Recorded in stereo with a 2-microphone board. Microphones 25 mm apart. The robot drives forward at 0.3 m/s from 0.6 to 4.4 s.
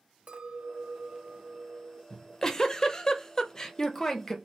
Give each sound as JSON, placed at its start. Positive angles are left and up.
{"t": 0.3, "sound": "a clink", "side_deg": -65, "distance_m": 1.5}
{"t": 2.1, "sound": "a giggle", "side_deg": 20, "distance_m": 0.5}